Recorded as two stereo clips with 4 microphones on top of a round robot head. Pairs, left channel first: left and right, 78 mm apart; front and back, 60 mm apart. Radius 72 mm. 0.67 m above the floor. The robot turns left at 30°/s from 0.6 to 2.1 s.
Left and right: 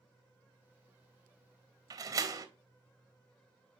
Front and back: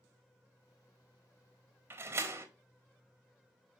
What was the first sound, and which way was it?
A door slam, 125° right.